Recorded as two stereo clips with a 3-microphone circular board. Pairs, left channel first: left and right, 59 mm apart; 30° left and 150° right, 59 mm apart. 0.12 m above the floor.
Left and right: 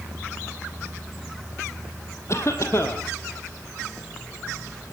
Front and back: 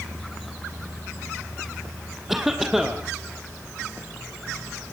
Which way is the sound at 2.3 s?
125° left.